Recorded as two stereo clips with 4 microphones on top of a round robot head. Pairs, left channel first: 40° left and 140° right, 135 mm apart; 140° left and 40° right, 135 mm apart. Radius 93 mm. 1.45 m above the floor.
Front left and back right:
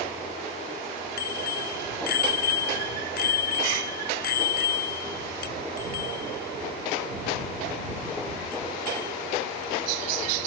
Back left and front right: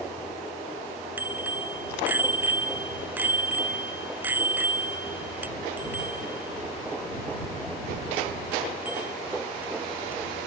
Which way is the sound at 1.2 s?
40° left.